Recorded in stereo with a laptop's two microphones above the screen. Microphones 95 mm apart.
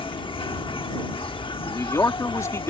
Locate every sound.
0.0 s an insect: 60° left (ahead or behind)
1.6 s a man speaking: 30° left (ahead or behind)